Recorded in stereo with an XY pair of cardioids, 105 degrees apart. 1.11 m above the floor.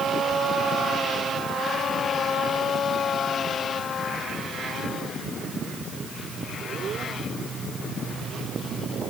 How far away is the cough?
I don't hear a cough.